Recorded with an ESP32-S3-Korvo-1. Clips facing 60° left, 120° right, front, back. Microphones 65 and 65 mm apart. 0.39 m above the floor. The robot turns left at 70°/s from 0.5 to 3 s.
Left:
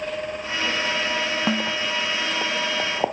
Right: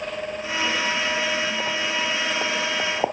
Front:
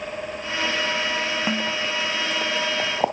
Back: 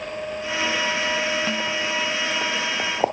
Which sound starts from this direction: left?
A snare drum, at 1.5 s.